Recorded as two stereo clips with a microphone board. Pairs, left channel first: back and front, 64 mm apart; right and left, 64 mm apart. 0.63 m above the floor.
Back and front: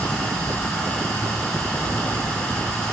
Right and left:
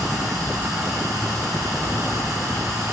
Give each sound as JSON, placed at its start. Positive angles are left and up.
{"t": 0.0, "sound": "running water", "azimuth_deg": 110, "distance_m": 5.5}